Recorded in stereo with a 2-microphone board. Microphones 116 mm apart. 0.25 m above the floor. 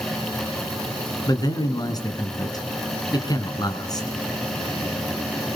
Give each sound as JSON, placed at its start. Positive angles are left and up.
{"t": 1.3, "sound": "a man speaking", "side_deg": 35, "distance_m": 3.0}